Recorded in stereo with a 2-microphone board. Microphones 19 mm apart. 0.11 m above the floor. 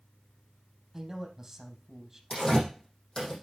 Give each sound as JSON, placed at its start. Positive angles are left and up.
{"t": 0.9, "sound": "a man speaking", "side_deg": -10, "distance_m": 3.5}
{"t": 2.3, "sound": "tearing paper", "side_deg": 30, "distance_m": 6.0}